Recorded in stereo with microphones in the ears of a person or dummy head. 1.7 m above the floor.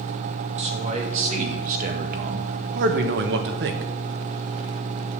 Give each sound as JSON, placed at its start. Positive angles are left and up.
{"t": 0.6, "sound": "a man speaking", "side_deg": -40, "distance_m": 2.5}